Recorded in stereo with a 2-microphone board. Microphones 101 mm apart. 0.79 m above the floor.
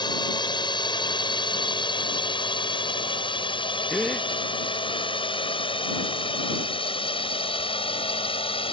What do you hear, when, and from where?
0.0 s a drone: 45° left (ahead or behind); by 8.7 s 60° left (ahead or behind)
3.9 s a gasp: 5° left (ahead or behind)